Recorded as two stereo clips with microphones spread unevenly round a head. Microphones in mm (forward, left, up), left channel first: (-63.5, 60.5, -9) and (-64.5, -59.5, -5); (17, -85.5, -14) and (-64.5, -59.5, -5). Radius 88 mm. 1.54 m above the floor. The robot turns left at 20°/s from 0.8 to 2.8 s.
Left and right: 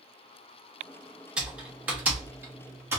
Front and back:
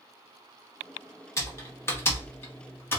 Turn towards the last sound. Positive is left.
turn(degrees=-50)